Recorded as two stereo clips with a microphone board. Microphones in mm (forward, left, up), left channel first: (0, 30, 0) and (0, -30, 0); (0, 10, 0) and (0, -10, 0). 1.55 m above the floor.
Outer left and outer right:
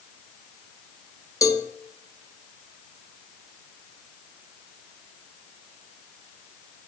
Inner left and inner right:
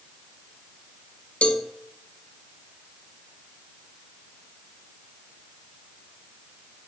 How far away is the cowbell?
About 0.6 m.